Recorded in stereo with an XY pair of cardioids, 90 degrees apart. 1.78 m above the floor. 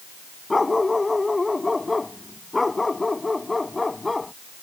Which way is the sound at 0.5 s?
20° left.